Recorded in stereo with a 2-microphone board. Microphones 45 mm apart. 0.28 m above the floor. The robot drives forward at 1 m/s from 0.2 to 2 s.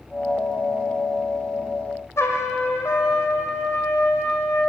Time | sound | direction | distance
2.2 | a trumpet | 80° left | 2.5 m